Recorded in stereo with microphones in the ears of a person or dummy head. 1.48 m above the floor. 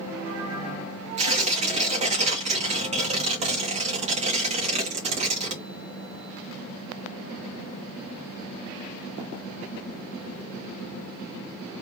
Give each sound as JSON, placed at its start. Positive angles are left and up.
{"t": 1.2, "sound": "tearing paper", "side_deg": -35, "distance_m": 1.9}